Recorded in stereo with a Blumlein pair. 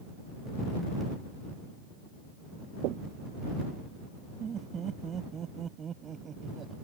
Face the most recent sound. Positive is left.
turn(degrees=-25)